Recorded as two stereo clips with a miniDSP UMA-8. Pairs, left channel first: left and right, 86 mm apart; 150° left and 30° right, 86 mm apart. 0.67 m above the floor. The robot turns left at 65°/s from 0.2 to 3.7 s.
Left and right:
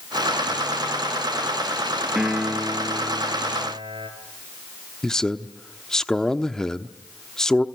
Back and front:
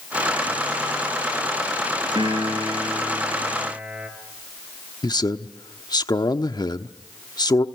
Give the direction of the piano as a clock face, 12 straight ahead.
12 o'clock.